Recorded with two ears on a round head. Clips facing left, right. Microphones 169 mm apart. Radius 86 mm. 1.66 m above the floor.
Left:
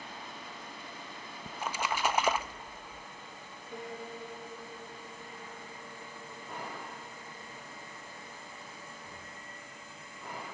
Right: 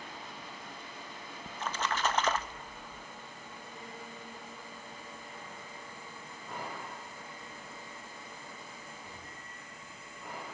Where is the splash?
10° left (ahead or behind), 0.9 m.